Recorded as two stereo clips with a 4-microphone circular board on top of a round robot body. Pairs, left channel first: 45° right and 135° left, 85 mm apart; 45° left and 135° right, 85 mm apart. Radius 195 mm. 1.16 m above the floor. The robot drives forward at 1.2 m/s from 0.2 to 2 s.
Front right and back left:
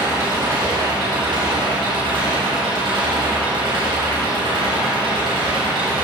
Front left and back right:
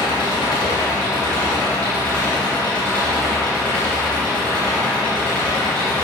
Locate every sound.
0.0 s an engine running: 75° left, 2.5 m; by 6.0 s 125° left, 3 m